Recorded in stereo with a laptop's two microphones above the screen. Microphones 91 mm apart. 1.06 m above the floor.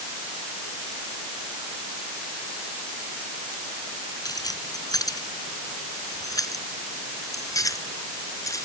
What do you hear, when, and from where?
4.2 s keys jangling: 45° left (ahead or behind); by 8.6 s 40° left (ahead or behind)